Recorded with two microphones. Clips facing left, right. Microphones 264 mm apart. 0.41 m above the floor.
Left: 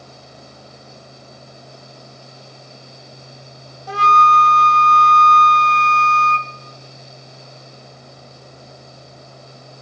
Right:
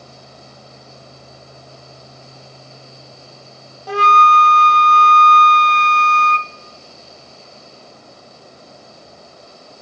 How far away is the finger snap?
No finger snap in this recording.